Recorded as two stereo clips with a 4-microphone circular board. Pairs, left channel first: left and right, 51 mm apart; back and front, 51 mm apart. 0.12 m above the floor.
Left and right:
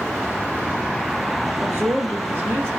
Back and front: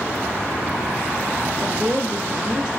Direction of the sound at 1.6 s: 70° right.